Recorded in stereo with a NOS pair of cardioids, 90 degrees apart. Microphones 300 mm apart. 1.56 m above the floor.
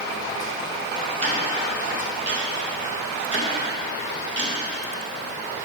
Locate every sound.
1.2 s ticking: 35° right, 2.5 m